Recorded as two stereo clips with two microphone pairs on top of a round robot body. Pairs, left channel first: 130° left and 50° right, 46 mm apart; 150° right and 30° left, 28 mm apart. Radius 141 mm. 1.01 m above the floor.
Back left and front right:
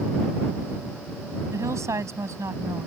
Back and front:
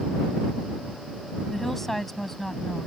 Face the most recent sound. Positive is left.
turn(degrees=-65)